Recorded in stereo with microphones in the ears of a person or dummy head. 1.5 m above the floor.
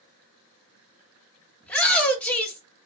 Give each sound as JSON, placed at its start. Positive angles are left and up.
{"t": 1.6, "sound": "a shout", "side_deg": 5, "distance_m": 0.9}